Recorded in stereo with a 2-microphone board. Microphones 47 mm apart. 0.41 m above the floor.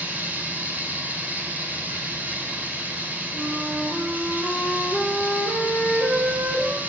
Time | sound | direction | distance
0.0 | running water | 35° right (ahead or behind) | 2.5 m
3.3 | a flute | 40° right (ahead or behind) | 5 m